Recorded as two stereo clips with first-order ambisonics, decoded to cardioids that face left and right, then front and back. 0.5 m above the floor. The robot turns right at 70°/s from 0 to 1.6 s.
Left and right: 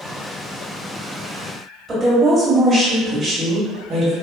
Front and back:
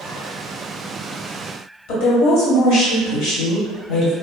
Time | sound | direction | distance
1.9 | a woman speaking | 15° right | 1.6 m